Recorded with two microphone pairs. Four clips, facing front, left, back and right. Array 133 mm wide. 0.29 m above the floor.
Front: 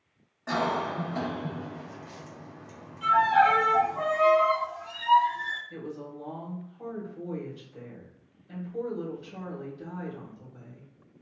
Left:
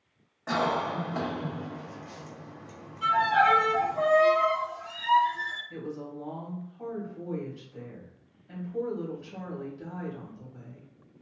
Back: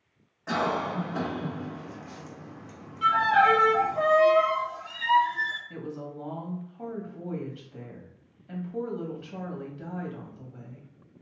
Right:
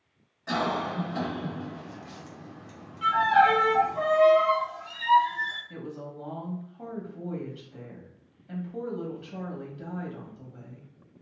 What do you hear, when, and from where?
0.5 s a cough: 90° left, 1.6 m
3.0 s a violin: 170° right, 1.0 m
5.7 s a woman speaking: 150° right, 1.2 m